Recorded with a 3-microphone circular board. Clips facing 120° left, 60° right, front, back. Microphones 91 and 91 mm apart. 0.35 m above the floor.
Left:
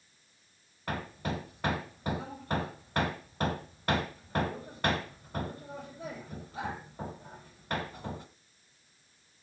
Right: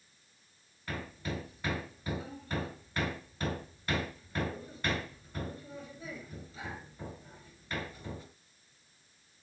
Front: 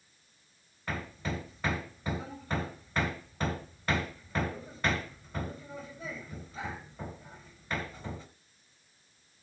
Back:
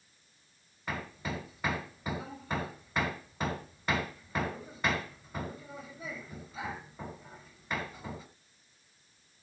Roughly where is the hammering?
Left.